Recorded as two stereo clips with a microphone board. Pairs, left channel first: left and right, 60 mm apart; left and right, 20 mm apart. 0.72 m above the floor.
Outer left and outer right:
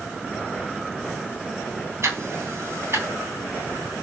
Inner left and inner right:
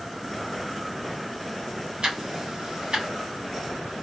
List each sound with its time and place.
2.0 s ticking: 50° right (ahead or behind), 3 m